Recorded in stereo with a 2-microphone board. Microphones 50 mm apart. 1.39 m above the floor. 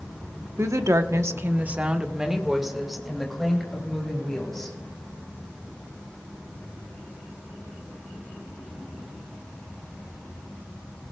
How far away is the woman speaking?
About 1.1 m.